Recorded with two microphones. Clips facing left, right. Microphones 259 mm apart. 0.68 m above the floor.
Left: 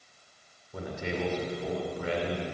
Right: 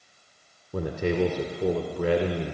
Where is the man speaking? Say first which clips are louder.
Right 8 dB; 65° right (ahead or behind), 1.9 m.